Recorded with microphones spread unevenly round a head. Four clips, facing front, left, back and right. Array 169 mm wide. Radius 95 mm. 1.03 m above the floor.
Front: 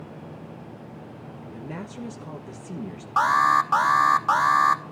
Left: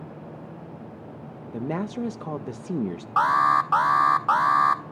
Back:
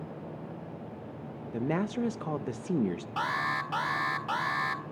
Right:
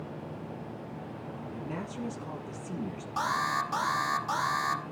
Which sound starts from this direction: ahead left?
An alarm, at 3.2 s.